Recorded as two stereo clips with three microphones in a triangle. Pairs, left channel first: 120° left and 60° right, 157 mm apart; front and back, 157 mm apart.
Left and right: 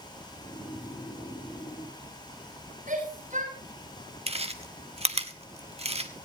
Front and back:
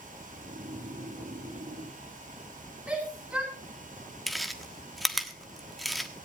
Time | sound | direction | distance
0.3 | snoring | straight behind | 3 m
2.9 | a shout | 100° right | 8 m
4.3 | chewing | 90° right | 1.2 m